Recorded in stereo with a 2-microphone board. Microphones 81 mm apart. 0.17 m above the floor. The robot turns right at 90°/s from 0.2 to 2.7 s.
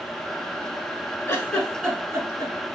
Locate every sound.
1.3 s a giggle: 30° left (ahead or behind), 1.1 m; by 2.5 s 55° right (ahead or behind), 1.1 m